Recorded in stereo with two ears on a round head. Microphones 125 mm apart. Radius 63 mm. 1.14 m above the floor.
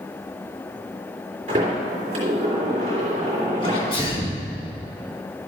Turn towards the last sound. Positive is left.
turn(degrees=40)  # may be behind; listen again after turning